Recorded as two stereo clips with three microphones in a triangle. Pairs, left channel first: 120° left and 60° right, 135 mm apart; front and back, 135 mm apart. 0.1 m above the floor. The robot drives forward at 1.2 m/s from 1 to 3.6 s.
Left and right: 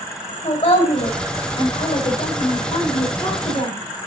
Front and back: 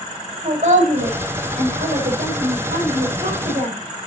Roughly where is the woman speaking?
Behind left.